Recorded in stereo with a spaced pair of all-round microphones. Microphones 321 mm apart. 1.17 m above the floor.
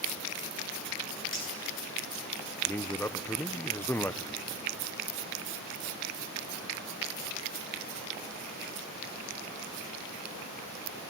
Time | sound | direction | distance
1.3 | cutlery clinking | 35° left (ahead or behind) | 9 m
2.6 | a man speaking | 5° left (ahead or behind) | 0.5 m